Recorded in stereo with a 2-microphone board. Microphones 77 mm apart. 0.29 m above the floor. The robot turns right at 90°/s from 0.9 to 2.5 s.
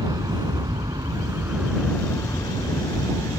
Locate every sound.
0.0 s an aircraft: 60° right (ahead or behind); by 3.4 s 70° left (ahead or behind)